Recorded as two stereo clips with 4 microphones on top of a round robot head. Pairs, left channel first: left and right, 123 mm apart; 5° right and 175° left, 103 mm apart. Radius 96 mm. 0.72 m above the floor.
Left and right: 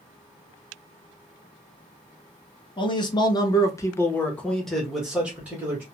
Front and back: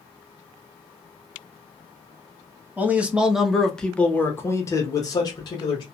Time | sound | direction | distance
2.8 | a man speaking | 110° left | 1.1 m